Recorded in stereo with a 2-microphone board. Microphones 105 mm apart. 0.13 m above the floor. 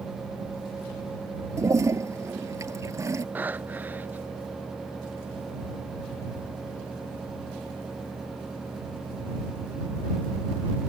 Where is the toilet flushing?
30° right (ahead or behind).